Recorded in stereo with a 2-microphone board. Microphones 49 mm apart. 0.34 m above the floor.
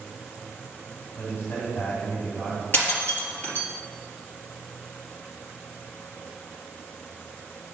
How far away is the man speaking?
About 2 m.